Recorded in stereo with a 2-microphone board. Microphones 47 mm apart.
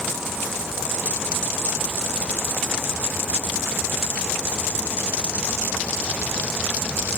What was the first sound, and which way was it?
Only background noise.